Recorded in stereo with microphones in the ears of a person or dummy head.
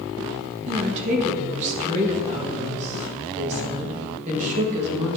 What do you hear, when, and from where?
0.7 s a woman speaking: 40° right (ahead or behind), 1.5 m